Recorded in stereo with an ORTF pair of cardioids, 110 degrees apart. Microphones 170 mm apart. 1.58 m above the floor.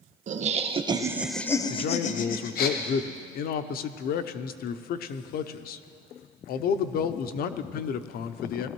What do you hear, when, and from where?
0.3 s laughter: 50° right, 1.3 m; by 2.7 s 70° left, 1.3 m
1.7 s a man speaking: 65° left, 0.7 m